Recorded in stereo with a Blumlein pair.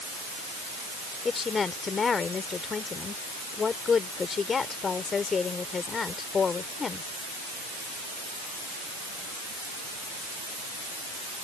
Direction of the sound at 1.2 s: 20° left.